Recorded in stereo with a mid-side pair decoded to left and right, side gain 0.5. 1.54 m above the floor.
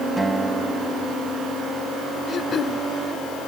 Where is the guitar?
20° right.